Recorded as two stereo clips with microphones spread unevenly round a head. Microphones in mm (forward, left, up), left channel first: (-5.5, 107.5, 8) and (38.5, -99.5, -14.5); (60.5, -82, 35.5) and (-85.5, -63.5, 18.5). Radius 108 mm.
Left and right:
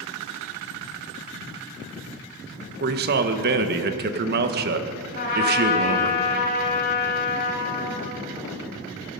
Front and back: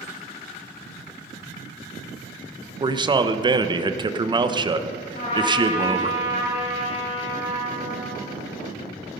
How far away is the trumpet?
About 4 m.